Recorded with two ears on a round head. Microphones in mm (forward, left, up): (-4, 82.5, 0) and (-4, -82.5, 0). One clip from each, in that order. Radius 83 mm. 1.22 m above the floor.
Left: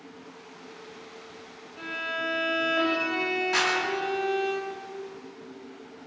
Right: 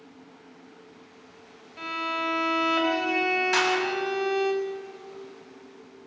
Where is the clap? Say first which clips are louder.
Even; 40° right (ahead or behind), 8 m.